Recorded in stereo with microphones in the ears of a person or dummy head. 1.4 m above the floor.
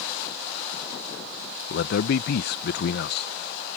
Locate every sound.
1.7 s a man speaking: 60° left (ahead or behind)